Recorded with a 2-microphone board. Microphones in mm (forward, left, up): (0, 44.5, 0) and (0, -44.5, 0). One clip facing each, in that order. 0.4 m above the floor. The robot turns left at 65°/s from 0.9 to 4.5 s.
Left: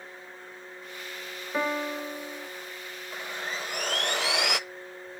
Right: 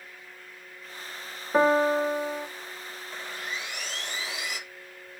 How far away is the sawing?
About 0.5 m.